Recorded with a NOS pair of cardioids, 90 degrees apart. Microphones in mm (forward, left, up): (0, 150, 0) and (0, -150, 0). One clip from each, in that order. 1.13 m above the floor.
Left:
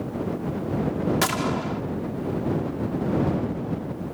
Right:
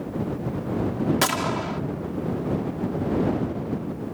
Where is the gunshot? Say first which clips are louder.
Right 3 dB; 25° right.